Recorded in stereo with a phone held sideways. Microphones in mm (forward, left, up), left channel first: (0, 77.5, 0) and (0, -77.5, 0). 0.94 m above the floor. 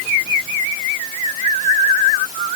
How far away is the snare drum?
No snare drum in this recording.